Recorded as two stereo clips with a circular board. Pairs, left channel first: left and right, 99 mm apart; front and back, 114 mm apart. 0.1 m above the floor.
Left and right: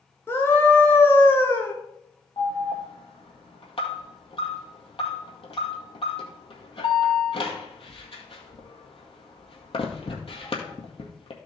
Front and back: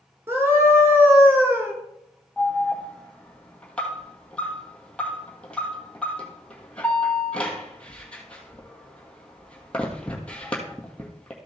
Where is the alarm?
80° left, 1.9 m.